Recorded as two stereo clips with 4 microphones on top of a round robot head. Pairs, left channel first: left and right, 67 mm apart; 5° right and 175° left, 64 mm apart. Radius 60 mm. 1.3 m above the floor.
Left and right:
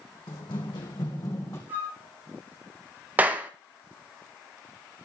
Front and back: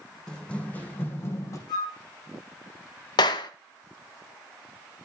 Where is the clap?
20° right, 1.2 m.